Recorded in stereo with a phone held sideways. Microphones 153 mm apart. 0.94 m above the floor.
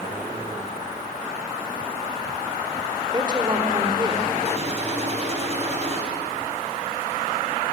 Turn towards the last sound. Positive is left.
turn(degrees=-45)  # may be behind; listen again after turning